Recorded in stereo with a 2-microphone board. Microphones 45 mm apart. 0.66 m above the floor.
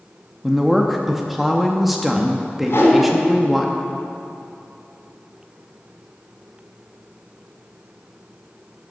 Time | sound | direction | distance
0.4 | a woman speaking | centre (ahead or behind) | 0.6 m
2.7 | a whoosh | 70° left (ahead or behind) | 2 m